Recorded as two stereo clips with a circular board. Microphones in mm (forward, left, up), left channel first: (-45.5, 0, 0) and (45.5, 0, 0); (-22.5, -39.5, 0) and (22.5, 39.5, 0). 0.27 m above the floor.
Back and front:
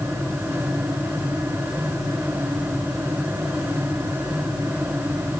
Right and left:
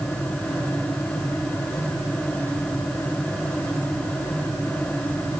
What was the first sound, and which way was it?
Only background noise.